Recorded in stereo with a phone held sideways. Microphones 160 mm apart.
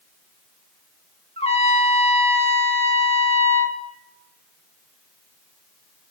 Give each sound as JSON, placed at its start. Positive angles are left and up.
{"t": 1.4, "sound": "a trumpet", "side_deg": 40, "distance_m": 1.7}